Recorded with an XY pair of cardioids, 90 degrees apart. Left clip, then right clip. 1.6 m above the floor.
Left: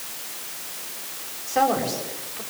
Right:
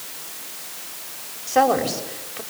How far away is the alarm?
I don't hear an alarm.